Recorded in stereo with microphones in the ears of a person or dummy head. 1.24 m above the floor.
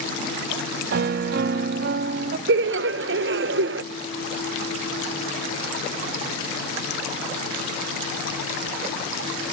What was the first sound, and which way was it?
A piano, 60° right (ahead or behind).